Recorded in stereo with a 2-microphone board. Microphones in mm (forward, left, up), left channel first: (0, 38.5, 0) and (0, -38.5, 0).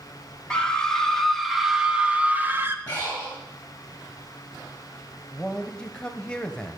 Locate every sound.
0.5 s a scream: 10° left (ahead or behind), 1.7 m; by 2.8 s 30° right (ahead or behind), 1.1 m
2.9 s breathing: 20° left (ahead or behind), 4.5 m
5.3 s a man speaking: 10° left (ahead or behind), 0.9 m